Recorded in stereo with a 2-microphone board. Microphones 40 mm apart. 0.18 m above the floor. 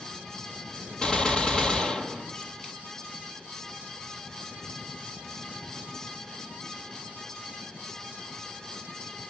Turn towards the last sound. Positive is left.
turn(degrees=20)  # may be behind; listen again after turning